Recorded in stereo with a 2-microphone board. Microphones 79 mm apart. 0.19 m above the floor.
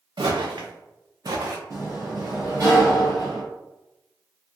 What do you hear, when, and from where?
0.2 s footsteps: 80° right, 0.9 m; by 1.6 s 40° right (ahead or behind), 0.7 m
1.7 s a sliding door: 45° right (ahead or behind), 1.7 m